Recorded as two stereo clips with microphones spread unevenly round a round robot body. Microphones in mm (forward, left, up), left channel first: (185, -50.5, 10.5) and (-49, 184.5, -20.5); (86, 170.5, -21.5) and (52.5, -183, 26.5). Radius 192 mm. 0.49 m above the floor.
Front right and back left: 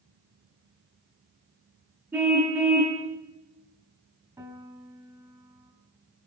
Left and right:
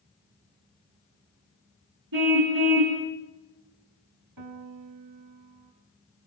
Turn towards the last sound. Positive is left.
turn(degrees=-145)